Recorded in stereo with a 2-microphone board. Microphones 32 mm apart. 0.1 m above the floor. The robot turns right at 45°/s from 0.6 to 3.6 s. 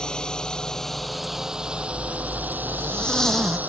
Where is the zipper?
95° left; by 3.6 s straight behind.